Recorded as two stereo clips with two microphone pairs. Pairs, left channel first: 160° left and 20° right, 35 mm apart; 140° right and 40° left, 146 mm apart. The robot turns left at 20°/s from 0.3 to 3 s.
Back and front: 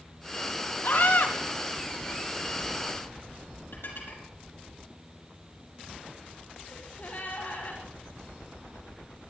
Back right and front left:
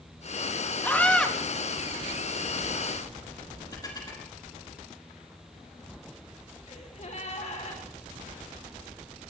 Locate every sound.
0.8 s a scream: 145° left, 3.5 m; by 1.3 s 135° left, 3.5 m
3.7 s dishes clattering: 160° left, 6 m
6.7 s a gasp: 170° right, 5.5 m